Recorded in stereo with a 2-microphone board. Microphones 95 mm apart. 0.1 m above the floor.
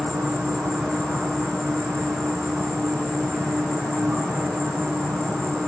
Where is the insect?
5° left (ahead or behind), 1.7 m.